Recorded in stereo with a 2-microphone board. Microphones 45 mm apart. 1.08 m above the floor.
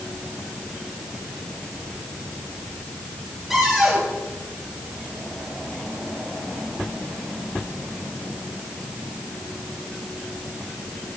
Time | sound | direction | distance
3.5 | a cupboard door | 10° right (ahead or behind) | 8 m